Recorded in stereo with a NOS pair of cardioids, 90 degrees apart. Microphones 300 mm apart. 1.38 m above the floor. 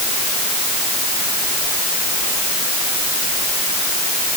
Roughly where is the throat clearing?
No throat clearing in this recording.